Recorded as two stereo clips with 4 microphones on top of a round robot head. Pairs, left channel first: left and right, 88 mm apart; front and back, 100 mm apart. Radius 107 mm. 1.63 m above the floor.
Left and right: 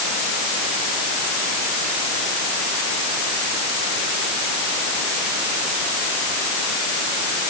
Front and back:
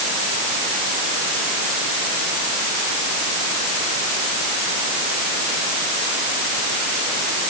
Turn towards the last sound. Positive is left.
No sound to turn to.